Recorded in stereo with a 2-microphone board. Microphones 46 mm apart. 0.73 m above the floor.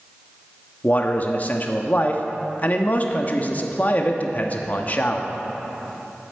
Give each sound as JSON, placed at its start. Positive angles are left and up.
{"t": 0.8, "sound": "a man speaking", "side_deg": 40, "distance_m": 1.1}